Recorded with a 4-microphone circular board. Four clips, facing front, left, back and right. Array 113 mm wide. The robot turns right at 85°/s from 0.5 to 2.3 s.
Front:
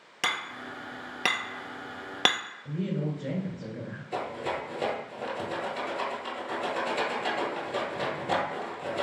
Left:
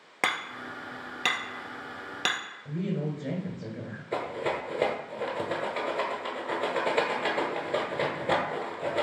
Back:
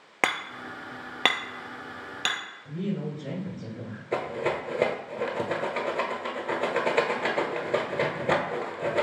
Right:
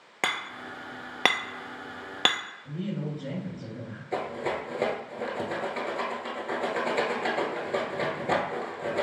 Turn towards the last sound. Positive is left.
turn(degrees=175)